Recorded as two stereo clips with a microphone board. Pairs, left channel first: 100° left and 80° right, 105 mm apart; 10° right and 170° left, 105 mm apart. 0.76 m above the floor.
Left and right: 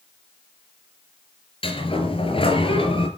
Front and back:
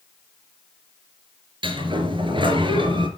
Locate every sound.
1.6 s a sliding door: 130° left, 4 m